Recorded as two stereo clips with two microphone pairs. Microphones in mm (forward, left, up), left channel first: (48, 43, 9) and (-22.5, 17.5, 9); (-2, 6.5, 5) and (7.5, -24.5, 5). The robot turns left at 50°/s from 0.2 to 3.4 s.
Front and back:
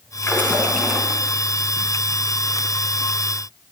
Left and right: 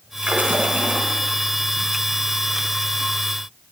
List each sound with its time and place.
0.2 s a splash: 35° right, 3.5 m; by 1.2 s 80° right, 3.5 m